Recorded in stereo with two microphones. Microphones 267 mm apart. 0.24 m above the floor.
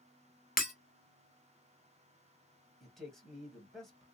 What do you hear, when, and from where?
0.6 s breaking glass: 35° left (ahead or behind), 1.1 m
2.8 s a man speaking: centre (ahead or behind), 1.3 m